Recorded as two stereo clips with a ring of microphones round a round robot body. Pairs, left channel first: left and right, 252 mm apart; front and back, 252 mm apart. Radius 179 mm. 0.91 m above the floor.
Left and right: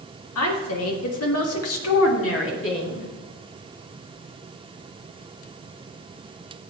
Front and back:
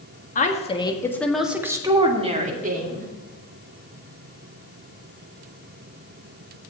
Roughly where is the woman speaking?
Ahead left.